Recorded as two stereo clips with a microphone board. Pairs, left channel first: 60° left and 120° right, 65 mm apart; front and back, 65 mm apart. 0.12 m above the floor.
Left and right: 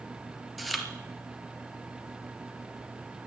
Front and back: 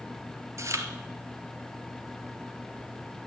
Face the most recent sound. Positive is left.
turn(degrees=150)